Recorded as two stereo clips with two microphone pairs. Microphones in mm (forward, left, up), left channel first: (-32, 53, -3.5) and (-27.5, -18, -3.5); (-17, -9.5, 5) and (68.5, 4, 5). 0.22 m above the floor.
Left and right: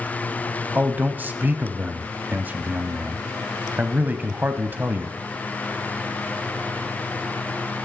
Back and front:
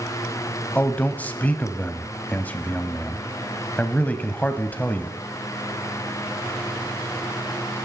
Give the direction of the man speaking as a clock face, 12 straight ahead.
4 o'clock.